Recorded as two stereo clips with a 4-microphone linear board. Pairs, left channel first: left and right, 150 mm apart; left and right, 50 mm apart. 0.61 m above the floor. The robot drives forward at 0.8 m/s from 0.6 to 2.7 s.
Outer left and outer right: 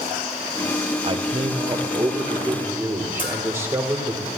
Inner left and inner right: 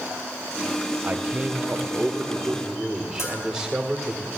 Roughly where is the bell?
Left.